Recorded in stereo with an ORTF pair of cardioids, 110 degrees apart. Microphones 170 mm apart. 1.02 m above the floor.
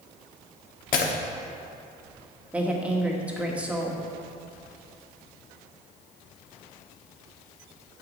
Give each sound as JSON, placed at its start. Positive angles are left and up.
{"t": 0.9, "sound": "breaking glass", "azimuth_deg": 60, "distance_m": 1.1}
{"t": 2.5, "sound": "a woman speaking", "azimuth_deg": -10, "distance_m": 1.3}